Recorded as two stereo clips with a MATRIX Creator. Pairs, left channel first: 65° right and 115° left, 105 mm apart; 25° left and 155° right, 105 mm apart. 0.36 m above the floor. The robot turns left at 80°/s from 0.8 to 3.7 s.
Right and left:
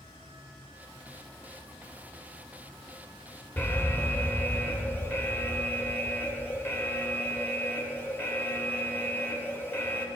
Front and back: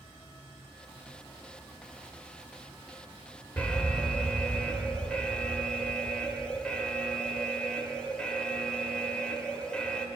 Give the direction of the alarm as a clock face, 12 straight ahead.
1 o'clock.